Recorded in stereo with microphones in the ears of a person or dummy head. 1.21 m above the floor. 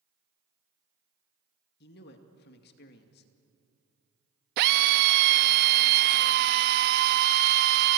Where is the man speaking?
55° left (ahead or behind), 2.5 m.